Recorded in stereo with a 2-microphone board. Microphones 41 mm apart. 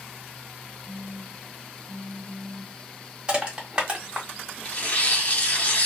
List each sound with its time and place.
0.9 s a phone buzzing: 25° right (ahead or behind), 0.8 m
3.3 s crushing: 20° right (ahead or behind), 1.3 m
4.7 s tearing paper: 40° left (ahead or behind), 1.0 m